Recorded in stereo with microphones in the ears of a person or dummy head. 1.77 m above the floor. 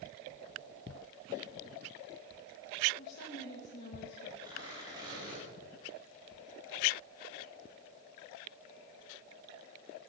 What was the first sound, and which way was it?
A woman speaking, 55° left (ahead or behind).